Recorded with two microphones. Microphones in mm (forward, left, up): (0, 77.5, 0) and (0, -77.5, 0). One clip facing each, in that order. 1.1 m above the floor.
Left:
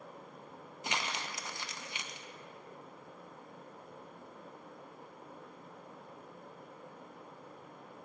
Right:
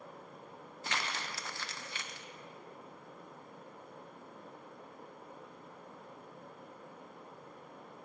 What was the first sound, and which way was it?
Crumpling, 15° left (ahead or behind).